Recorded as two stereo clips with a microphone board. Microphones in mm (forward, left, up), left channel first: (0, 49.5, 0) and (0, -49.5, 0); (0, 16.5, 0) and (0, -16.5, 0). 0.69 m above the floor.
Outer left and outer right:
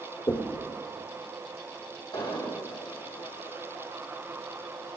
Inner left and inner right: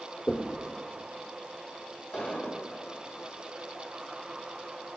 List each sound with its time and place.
0.3 s knocking: 65° left (ahead or behind), 1.8 m
2.1 s an explosion: 55° left (ahead or behind), 5.5 m